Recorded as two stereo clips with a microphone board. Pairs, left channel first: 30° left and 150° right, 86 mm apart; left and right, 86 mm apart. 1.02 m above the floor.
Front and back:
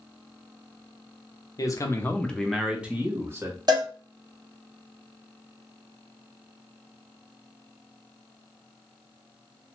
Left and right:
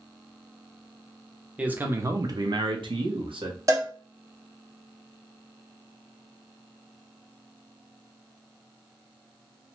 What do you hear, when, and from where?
1.6 s a man speaking: 15° right, 0.6 m; by 3.6 s 95° right, 0.9 m
3.7 s a cowbell: 130° right, 0.7 m